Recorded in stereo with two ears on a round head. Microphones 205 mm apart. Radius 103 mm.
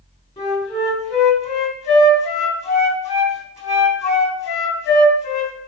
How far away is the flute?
About 2.5 m.